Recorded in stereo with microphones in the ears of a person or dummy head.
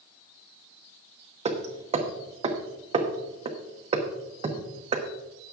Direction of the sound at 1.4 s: 30° right (ahead or behind).